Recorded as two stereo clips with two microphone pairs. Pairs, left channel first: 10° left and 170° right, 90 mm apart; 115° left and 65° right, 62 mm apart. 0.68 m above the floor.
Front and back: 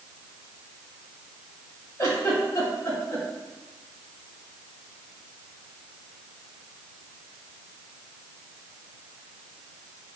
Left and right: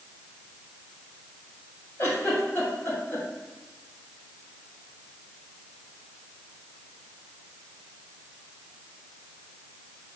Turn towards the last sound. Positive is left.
turn(degrees=65)